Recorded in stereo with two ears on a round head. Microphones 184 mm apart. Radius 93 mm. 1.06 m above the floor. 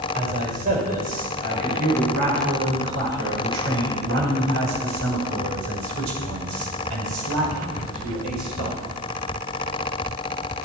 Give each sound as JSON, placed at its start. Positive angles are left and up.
{"t": 0.1, "sound": "a man speaking", "side_deg": -40, "distance_m": 5.5}